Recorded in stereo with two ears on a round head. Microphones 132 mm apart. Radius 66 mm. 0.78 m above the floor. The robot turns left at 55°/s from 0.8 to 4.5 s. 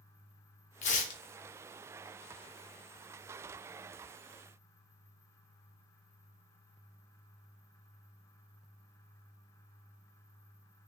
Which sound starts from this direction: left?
Tearing paper, at 0.8 s.